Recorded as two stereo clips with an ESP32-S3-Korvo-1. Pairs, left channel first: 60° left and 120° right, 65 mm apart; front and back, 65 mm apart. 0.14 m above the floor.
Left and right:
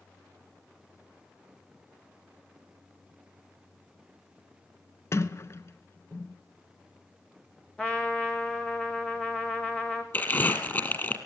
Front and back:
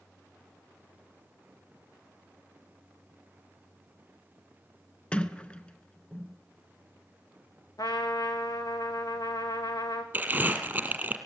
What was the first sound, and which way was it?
A sliding door, 65° left.